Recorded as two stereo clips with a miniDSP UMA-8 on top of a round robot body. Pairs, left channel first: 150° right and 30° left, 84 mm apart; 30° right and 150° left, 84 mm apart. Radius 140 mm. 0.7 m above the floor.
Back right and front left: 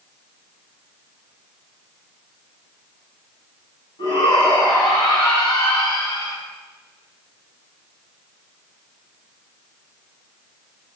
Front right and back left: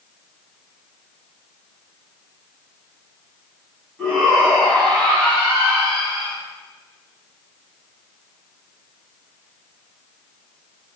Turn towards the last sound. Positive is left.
turn(degrees=-110)